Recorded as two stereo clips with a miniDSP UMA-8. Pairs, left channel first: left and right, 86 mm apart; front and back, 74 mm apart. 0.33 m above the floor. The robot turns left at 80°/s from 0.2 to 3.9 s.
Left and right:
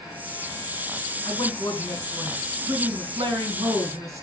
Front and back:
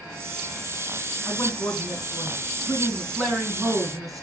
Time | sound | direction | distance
1.2 | a man speaking | 70° left | 4 m